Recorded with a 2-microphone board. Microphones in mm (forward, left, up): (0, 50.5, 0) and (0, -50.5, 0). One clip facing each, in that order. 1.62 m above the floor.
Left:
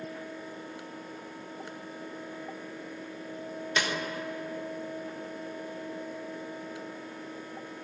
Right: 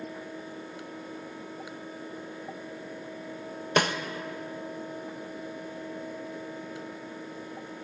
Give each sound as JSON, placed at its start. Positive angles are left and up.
{"t": 3.8, "sound": "a snare drum", "side_deg": -55, "distance_m": 1.2}